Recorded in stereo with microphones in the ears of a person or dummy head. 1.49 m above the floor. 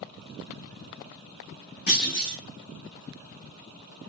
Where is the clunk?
45° left (ahead or behind), 1.7 m.